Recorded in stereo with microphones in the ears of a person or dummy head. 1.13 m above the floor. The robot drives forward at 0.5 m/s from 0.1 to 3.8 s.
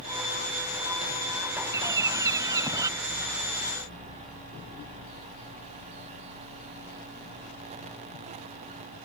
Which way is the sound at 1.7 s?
15° right (ahead or behind).